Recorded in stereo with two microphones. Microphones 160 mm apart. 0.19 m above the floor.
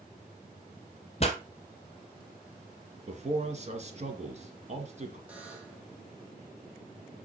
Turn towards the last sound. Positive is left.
turn(degrees=-10)  # may be behind; listen again after turning